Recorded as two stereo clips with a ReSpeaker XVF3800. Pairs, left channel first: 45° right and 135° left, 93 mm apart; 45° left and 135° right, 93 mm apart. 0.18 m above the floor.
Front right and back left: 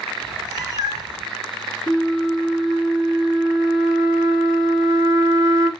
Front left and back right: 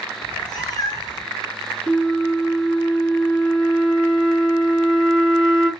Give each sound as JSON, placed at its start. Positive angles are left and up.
{"t": 0.2, "sound": "a cat meowing", "azimuth_deg": 90, "distance_m": 2.0}
{"t": 1.9, "sound": "a flute", "azimuth_deg": 110, "distance_m": 2.5}